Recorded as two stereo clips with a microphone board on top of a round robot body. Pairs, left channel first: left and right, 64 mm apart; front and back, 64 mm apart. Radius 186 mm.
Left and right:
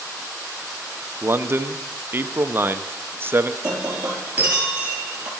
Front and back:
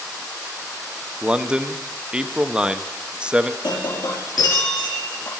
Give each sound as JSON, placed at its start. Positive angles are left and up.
{"t": 1.2, "sound": "a man speaking", "azimuth_deg": -110, "distance_m": 1.2}
{"t": 3.6, "sound": "breaking glass", "azimuth_deg": -25, "distance_m": 4.5}